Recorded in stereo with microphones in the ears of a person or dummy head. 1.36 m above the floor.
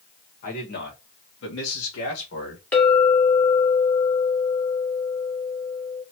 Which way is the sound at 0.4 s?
50° left (ahead or behind).